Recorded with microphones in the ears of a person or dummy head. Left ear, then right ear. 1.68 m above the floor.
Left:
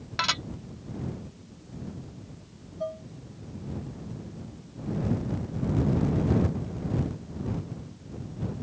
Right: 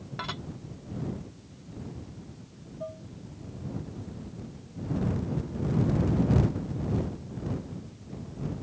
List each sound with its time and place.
0.2 s dishes clattering: 55° left (ahead or behind)
2.8 s dishes clattering: 30° left (ahead or behind)